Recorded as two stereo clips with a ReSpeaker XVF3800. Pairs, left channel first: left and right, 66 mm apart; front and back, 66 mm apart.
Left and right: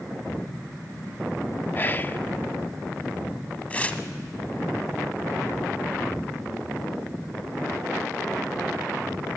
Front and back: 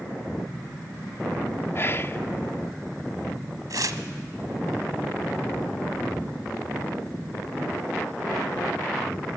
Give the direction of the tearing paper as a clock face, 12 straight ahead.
7 o'clock.